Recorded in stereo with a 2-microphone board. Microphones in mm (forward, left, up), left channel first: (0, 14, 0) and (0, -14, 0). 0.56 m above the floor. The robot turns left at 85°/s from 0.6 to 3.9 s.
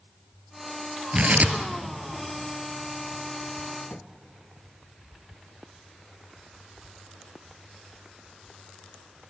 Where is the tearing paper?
40° right (ahead or behind), 1.7 m; by 4.0 s 80° left, 1.7 m.